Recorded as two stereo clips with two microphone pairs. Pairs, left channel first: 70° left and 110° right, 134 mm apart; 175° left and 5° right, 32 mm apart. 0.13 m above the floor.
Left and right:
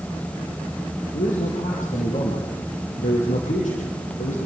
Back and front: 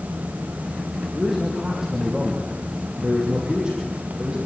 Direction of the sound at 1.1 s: 70° left.